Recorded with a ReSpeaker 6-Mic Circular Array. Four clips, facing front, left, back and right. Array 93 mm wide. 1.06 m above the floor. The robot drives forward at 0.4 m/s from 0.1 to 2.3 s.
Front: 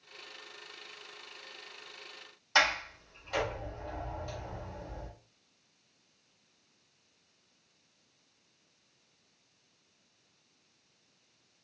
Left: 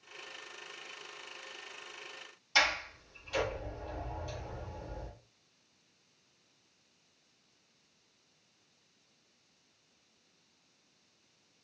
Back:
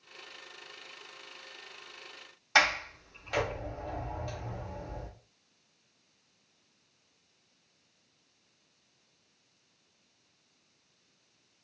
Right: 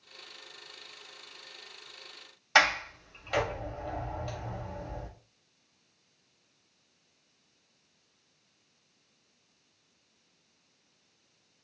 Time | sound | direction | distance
2.5 | a sliding door | 120° right | 1.2 m